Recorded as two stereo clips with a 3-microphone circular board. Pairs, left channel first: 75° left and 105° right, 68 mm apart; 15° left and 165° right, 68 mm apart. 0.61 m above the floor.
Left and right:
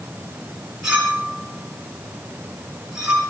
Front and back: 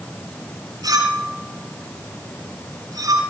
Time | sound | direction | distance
0.8 | a clink | 175° left | 7 m